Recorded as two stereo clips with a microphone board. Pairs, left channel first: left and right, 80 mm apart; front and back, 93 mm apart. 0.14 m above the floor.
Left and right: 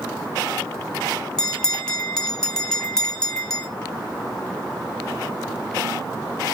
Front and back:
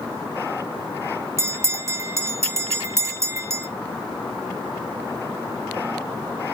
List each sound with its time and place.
1.4 s a bell: 160° left, 0.6 m